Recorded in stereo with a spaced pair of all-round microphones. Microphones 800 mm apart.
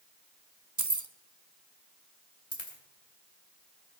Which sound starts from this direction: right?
Keys jangling, at 0.8 s.